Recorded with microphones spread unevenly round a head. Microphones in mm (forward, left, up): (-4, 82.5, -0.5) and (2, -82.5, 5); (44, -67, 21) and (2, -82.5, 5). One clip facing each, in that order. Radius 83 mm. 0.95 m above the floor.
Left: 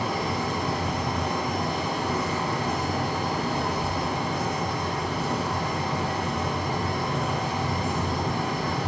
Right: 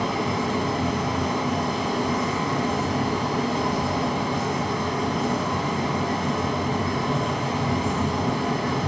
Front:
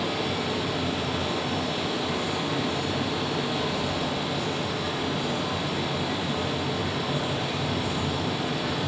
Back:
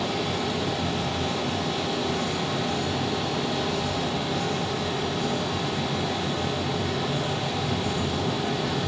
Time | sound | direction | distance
0.0 | a fan | 75° right | 1.4 m